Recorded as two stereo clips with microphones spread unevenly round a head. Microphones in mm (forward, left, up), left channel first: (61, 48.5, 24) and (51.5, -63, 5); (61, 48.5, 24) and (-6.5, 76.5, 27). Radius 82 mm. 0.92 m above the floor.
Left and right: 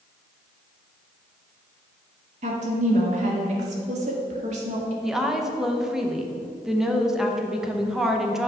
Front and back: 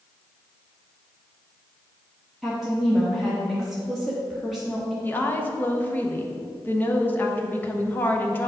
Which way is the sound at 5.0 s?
35° right.